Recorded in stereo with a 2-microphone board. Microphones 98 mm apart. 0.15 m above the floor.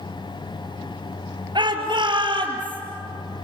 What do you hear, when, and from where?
1.6 s a shout: 50° right (ahead or behind), 2.5 m; by 2.8 s 55° right (ahead or behind), 4 m